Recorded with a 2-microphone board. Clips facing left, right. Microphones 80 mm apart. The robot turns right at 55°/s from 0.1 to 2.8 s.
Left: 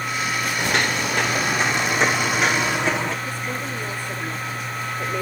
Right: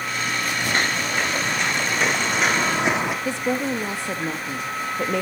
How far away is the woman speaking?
About 1.8 m.